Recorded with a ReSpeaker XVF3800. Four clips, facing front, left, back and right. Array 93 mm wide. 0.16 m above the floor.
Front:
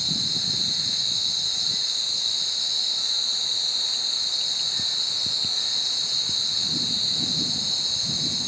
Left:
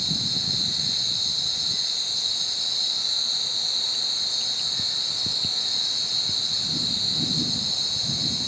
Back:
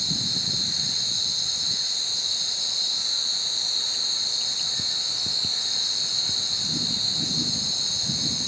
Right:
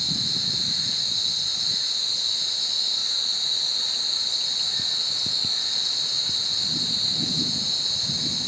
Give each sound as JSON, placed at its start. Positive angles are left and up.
{"t": 0.0, "sound": "an insect", "azimuth_deg": -115, "distance_m": 1.2}